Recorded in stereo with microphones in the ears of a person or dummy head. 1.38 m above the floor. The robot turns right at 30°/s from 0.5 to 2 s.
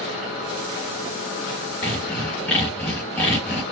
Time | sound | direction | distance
1.8 | sawing | 5° left (ahead or behind) | 1.3 m